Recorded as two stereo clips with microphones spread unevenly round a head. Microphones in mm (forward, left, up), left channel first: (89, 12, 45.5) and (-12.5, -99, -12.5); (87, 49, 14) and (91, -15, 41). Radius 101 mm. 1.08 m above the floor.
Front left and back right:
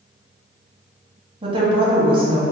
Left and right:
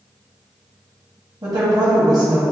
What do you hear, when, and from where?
1.4 s a woman speaking: 130° right, 0.8 m